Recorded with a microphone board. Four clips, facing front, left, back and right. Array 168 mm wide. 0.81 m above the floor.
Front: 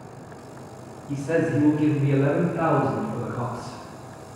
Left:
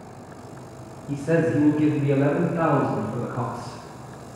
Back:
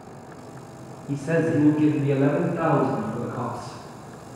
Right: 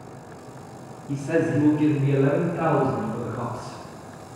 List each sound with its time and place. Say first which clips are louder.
1.1 s a man speaking: left 1 dB, back 1 dB; 140° left, 0.7 m; by 3.8 s 115° left, 2 m